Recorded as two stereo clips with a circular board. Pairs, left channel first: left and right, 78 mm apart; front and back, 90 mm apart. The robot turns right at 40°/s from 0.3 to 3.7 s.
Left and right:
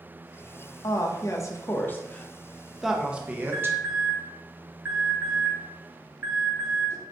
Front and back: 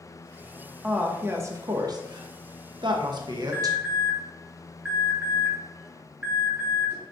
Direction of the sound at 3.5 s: 130° right.